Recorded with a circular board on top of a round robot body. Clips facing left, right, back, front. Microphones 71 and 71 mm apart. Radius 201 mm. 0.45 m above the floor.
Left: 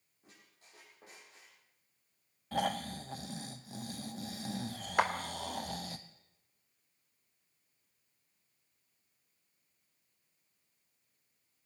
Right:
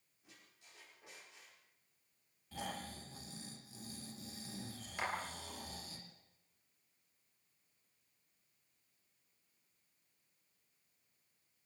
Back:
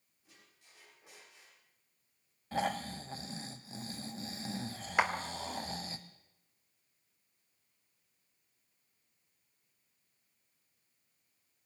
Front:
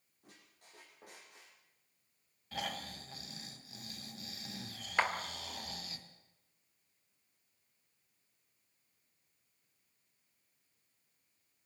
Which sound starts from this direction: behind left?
Snoring, at 2.5 s.